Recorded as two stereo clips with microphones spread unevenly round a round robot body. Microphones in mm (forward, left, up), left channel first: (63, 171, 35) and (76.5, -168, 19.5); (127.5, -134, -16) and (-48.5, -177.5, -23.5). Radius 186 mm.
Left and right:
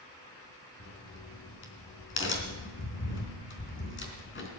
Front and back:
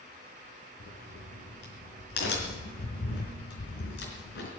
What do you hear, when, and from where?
0.8 s a crack: 40° left, 4 m